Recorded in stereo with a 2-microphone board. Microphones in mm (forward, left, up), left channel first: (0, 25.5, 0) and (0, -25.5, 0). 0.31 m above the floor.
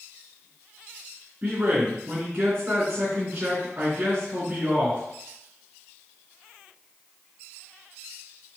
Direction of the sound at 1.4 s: 30° right (ahead or behind).